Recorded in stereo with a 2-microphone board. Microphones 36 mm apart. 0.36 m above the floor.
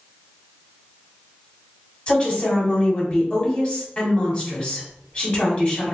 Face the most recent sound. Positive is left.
turn(degrees=35)  # may be behind; listen again after turning